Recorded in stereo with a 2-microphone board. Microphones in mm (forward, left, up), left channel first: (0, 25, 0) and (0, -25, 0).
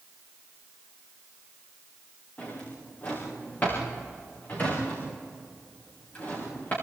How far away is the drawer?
About 8 m.